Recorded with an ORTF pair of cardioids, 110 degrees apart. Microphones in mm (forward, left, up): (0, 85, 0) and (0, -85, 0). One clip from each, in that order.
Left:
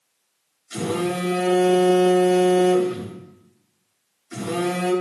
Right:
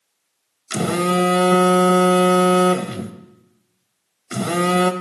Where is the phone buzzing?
70° right, 0.9 m.